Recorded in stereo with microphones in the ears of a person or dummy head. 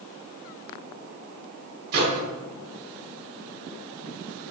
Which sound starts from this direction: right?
A microwave, at 1.9 s.